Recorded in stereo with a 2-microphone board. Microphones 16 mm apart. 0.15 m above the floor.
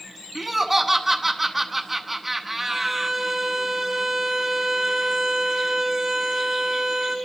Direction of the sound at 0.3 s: 5° right (ahead or behind).